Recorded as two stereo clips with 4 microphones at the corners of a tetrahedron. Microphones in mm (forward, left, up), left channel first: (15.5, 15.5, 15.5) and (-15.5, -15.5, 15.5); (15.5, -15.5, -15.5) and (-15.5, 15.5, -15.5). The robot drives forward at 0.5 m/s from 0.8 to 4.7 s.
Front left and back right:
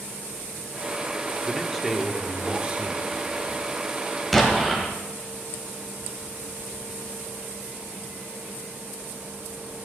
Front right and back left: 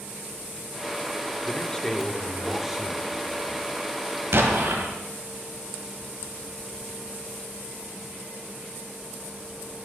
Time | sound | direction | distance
1.4 | a man speaking | 25° right | 0.9 m
4.3 | an explosion | 135° left | 1.6 m